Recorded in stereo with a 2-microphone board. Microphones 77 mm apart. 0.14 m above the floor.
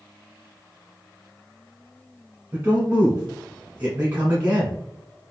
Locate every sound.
2.5 s a man speaking: 20° right (ahead or behind), 1.4 m